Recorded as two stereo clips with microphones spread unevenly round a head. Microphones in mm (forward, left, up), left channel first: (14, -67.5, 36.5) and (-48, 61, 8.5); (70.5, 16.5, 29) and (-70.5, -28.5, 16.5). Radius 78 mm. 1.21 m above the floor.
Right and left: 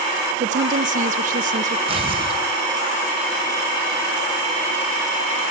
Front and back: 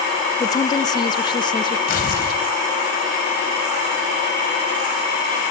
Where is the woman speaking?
90° left, 0.9 m; by 1.8 s 80° left, 1.9 m.